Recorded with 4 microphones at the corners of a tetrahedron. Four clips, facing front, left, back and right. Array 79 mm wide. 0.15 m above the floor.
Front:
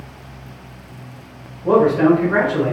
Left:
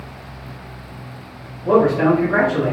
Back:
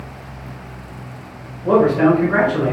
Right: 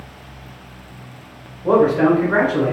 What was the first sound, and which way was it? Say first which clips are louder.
A man speaking: right 1 dB, even; 75° right.